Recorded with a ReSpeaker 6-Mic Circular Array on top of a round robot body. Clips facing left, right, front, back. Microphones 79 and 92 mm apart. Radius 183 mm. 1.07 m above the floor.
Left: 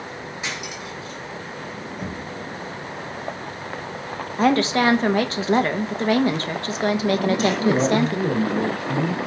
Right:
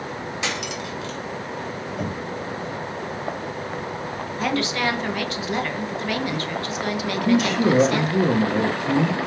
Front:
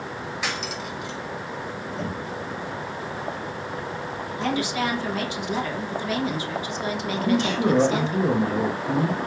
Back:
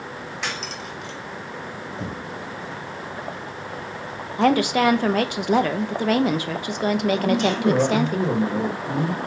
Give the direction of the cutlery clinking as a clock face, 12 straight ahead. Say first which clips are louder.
Right 3 dB, even; 3 o'clock.